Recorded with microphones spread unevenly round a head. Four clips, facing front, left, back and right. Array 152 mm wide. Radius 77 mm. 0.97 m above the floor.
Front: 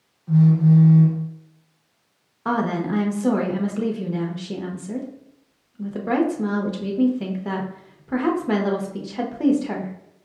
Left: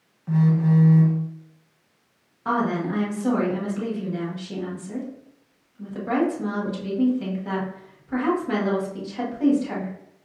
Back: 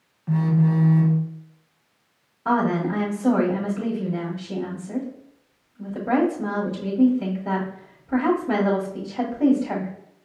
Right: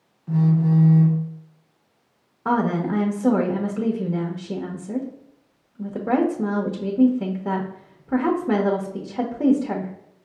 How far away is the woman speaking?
About 1.0 m.